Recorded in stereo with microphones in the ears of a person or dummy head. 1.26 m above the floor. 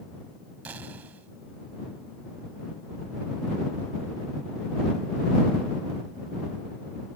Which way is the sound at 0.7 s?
5° right (ahead or behind).